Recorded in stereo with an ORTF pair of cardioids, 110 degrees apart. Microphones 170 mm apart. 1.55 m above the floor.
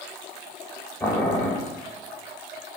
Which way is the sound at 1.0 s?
15° left.